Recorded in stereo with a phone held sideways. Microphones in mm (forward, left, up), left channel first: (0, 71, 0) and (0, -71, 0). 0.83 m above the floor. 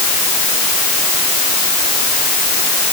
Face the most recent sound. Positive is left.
No sound to turn to.